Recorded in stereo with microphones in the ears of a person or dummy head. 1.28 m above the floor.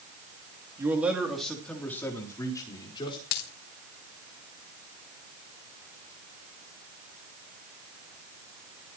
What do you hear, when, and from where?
0.8 s a man speaking: 20° right (ahead or behind), 3 m; by 3.2 s 20° left (ahead or behind), 5 m
3.3 s a dropped coin: 55° left (ahead or behind), 2 m